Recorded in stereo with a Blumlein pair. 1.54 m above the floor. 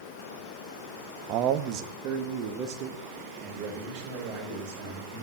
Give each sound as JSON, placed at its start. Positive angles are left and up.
{"t": 1.3, "sound": "a man speaking", "azimuth_deg": -35, "distance_m": 1.1}